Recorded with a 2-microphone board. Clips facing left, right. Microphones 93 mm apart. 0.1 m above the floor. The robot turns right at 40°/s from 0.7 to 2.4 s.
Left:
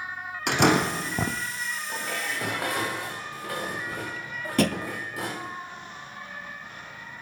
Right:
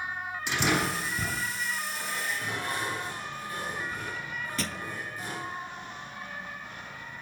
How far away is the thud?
About 0.5 m.